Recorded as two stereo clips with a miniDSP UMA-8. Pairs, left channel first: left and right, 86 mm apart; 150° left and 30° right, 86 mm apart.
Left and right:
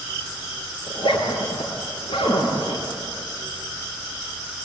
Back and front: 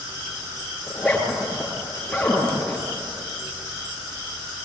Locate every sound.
0.9 s a zipper: 65° left, 6.5 m